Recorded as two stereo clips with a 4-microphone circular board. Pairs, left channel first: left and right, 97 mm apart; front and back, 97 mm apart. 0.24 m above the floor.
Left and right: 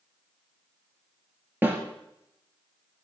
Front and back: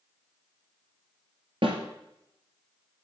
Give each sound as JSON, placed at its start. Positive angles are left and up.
{"t": 1.6, "sound": "a snare drum", "azimuth_deg": -160, "distance_m": 2.5}